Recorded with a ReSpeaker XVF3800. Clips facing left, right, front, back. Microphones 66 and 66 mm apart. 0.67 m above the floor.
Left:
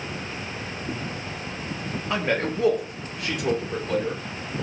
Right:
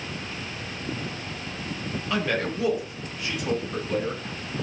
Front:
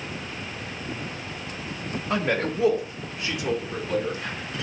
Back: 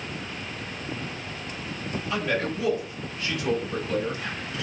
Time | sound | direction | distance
2.1 | a man speaking | 30° left | 1.2 m